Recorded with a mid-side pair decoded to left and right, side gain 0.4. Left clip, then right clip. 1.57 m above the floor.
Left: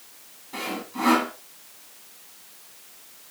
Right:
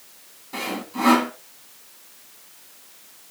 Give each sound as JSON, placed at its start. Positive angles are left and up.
{"t": 0.5, "sound": "sawing", "azimuth_deg": -35, "distance_m": 2.5}